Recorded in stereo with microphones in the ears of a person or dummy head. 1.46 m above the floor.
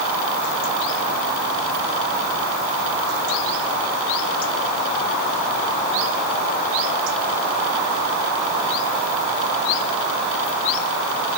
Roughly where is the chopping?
No chopping in this recording.